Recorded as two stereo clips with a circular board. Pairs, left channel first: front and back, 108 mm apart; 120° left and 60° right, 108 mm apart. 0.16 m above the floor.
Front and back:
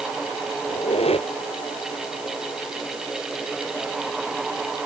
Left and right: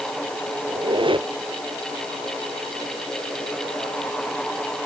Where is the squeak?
20° right.